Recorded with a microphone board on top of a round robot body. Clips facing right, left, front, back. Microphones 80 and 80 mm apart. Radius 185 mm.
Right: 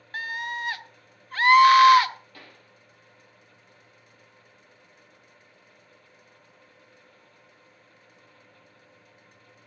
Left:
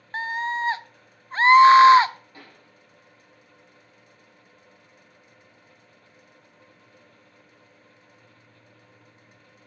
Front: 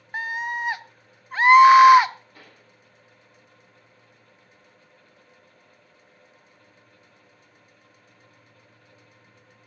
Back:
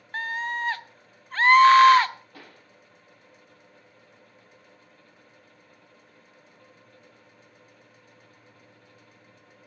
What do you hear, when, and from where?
0.1 s a scream: 65° left, 0.8 m
2.3 s a pop: 160° left, 6.5 m